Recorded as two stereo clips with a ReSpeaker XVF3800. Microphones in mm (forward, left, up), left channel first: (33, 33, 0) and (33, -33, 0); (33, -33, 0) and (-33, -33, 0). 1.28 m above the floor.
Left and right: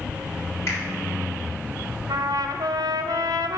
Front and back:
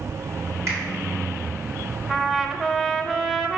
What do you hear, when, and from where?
0.7 s a finger snap: 135° left, 3 m
2.1 s a trumpet: 95° right, 0.6 m